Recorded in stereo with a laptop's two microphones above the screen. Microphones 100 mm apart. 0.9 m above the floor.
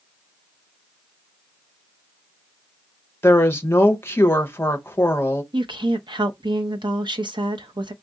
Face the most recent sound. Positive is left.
turn(degrees=-50)  # may be behind; listen again after turning